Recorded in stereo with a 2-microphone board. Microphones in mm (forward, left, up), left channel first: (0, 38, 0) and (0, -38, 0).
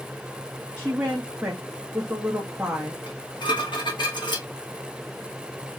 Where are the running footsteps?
I don't hear running footsteps.